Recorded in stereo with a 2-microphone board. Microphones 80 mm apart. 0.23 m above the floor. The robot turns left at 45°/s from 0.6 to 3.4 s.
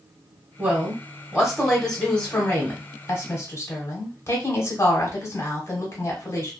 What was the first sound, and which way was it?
A woman speaking, 135° right.